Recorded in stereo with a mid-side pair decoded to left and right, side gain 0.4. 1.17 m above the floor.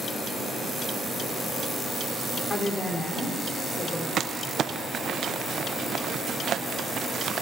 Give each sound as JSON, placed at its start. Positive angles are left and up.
{"t": 2.5, "sound": "a woman speaking", "azimuth_deg": 35, "distance_m": 3.0}
{"t": 4.2, "sound": "crumpling", "azimuth_deg": -60, "distance_m": 0.6}